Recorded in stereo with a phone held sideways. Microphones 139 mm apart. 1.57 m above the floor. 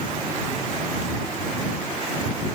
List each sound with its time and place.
Only background noise.